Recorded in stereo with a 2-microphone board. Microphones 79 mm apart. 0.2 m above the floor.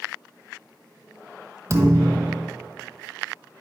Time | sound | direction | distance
1.7 | a thud | 35° right (ahead or behind) | 0.9 m